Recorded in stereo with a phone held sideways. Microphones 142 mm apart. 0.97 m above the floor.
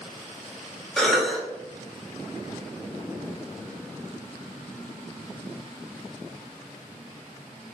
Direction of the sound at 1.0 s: 5° left (ahead or behind).